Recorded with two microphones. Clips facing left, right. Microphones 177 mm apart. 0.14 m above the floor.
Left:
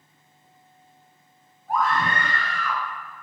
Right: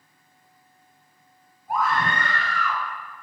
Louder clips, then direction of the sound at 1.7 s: Left 1 dB; 15° right (ahead or behind).